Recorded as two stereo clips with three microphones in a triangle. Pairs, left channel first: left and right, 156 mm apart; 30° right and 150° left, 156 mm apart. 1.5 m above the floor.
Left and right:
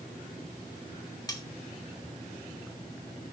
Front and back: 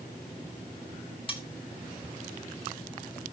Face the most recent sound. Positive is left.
turn(degrees=25)